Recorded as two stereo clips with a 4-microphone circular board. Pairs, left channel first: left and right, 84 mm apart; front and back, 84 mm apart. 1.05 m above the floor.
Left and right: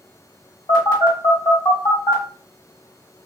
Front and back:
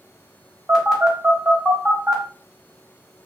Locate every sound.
0.7 s a phone buzzing: 95° left, 1.3 m